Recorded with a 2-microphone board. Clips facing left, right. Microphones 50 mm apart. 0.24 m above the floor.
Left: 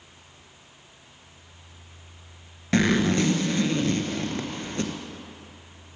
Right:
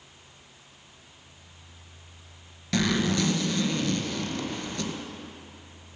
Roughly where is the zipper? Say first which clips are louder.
Left 4 dB; left.